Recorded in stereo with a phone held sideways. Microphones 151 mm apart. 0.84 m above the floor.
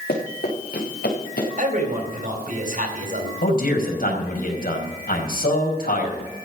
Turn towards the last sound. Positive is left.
turn(degrees=70)  # may be behind; listen again after turning